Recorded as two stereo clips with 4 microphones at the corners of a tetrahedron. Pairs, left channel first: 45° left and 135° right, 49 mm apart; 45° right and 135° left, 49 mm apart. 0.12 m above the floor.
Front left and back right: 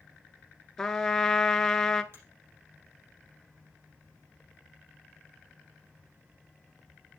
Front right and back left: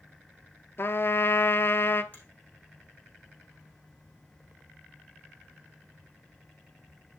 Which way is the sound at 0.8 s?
35° right.